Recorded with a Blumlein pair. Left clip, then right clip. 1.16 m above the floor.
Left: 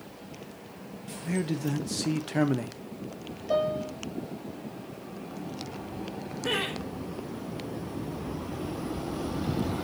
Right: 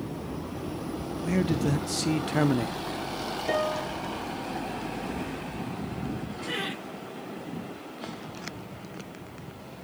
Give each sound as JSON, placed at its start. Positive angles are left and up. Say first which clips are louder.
{"t": 1.2, "sound": "a man speaking", "louder": "right 3 dB", "azimuth_deg": -10, "distance_m": 1.4}
{"t": 3.5, "sound": "a piano", "louder": "left 1 dB", "azimuth_deg": -40, "distance_m": 9.0}
{"t": 6.4, "sound": "laughter", "louder": "left 3 dB", "azimuth_deg": 35, "distance_m": 6.0}